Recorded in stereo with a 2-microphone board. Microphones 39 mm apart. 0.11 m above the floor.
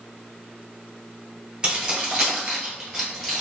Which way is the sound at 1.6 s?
25° right (ahead or behind).